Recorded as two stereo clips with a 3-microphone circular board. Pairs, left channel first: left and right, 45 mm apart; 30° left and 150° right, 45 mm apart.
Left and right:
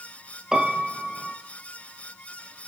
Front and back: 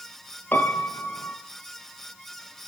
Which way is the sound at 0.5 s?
15° right.